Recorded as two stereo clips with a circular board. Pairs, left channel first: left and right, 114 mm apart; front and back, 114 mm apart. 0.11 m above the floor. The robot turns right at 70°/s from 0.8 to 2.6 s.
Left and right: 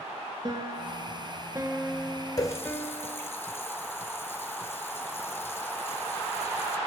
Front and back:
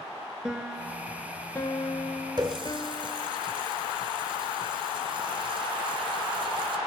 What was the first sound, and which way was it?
A piano, 100° right.